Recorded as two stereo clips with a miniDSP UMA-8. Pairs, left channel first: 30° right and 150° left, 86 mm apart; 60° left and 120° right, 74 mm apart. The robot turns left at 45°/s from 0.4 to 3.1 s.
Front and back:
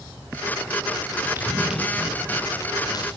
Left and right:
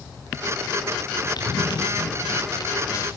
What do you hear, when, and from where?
1.4 s running footsteps: 85° left, 6 m; by 3.1 s 10° left, 8.5 m